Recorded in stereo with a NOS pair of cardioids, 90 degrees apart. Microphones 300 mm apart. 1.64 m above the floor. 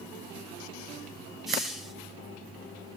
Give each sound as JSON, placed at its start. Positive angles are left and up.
{"t": 1.5, "sound": "a hiss", "azimuth_deg": 0, "distance_m": 1.4}